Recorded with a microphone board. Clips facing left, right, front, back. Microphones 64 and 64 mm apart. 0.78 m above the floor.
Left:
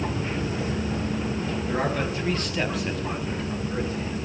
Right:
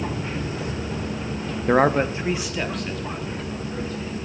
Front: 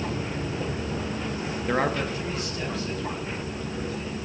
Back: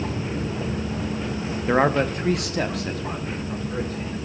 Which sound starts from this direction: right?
A man speaking, at 1.7 s.